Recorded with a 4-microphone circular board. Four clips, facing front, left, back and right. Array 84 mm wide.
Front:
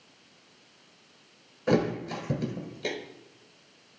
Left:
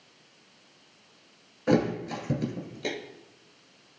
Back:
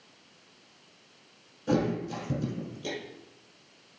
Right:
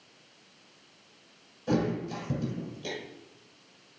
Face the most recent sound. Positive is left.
turn(degrees=50)